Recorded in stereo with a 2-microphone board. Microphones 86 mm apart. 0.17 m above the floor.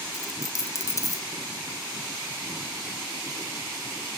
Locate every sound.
0.1 s a dropped coin: 40° left (ahead or behind), 0.5 m